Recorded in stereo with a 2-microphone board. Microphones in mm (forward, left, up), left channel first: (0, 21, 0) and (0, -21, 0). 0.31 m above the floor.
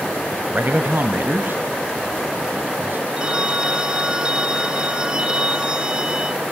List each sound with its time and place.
0.5 s a man speaking: 45° right (ahead or behind), 1.4 m; by 3.1 s 50° right (ahead or behind), 3.5 m
3.2 s a phone ringing: 20° right (ahead or behind), 1.6 m